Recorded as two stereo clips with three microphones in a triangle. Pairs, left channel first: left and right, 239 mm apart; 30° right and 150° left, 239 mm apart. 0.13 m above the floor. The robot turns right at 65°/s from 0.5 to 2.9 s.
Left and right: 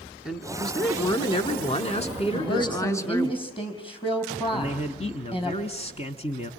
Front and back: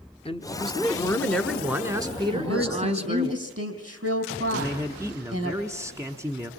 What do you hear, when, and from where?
0.2 s a man speaking: 5° right, 1.1 m; by 3.3 s 150° left, 1.1 m
2.3 s a woman speaking: 120° left, 4.5 m; by 5.5 s 155° left, 4.5 m
4.5 s a man speaking: 90° left, 1.2 m